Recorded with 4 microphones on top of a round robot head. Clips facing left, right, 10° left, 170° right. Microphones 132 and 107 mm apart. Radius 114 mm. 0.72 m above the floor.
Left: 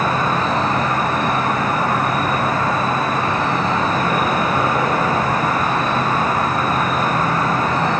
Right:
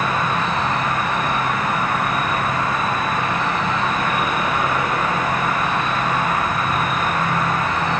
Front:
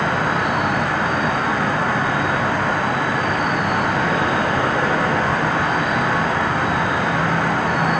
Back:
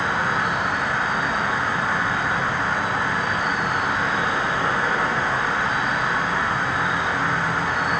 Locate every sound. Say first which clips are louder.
0.0 s an insect: left 2 dB, front 3 dB; 35° left, 1.6 m